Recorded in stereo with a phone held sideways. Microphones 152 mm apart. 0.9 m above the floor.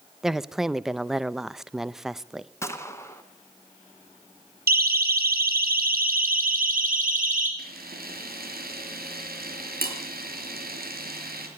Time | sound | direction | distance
0.2 | a woman speaking | 5° right (ahead or behind) | 0.7 m
2.6 | a gunshot | 15° left (ahead or behind) | 2 m
4.7 | a siren | 85° right | 3 m
7.6 | a camera shutter | 85° right | 5 m